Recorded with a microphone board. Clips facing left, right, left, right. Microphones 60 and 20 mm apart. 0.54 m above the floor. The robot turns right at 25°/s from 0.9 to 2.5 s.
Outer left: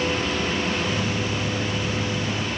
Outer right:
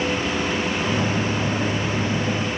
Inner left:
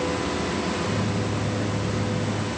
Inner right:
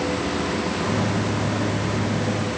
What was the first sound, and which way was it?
Only background noise.